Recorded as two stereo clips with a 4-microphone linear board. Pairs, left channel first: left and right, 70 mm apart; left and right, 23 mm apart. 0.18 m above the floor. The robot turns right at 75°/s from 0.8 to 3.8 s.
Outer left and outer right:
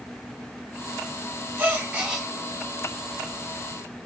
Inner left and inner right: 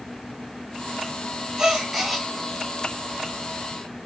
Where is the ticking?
I don't hear ticking.